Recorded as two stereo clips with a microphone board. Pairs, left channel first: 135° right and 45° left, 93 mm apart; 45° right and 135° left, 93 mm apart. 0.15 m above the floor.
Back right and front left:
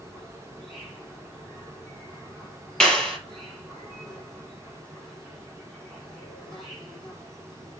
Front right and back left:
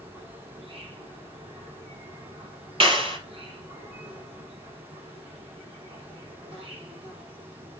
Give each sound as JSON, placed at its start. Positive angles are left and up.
{"t": 0.0, "sound": "an insect", "azimuth_deg": 135, "distance_m": 6.5}
{"t": 2.8, "sound": "a clap", "azimuth_deg": 145, "distance_m": 4.0}